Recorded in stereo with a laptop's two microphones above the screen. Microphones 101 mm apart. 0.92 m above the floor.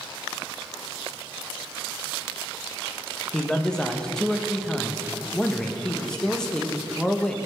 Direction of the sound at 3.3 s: 5° left (ahead or behind).